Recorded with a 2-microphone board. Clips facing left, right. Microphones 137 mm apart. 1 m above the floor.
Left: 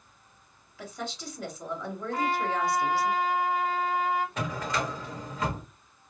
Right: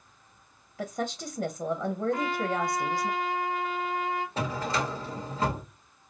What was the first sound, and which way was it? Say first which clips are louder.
A woman speaking: right 5 dB; 45° right (ahead or behind).